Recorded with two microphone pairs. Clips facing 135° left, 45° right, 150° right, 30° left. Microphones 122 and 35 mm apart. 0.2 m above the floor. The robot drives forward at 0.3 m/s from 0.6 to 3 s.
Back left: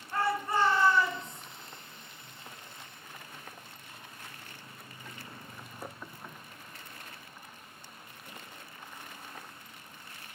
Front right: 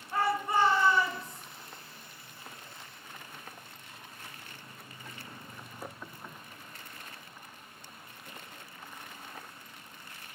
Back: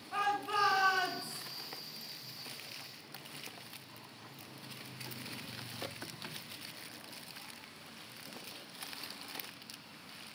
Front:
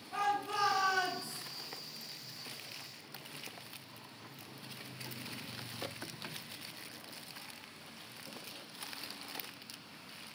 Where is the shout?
115° right, 1.2 m; by 1.4 s 130° right, 1.3 m.